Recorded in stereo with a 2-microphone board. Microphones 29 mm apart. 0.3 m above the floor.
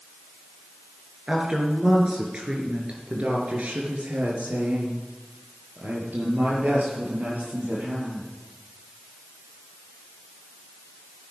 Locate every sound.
1.3 s a woman speaking: 25° right (ahead or behind), 4 m; by 8.3 s 80° right, 6.5 m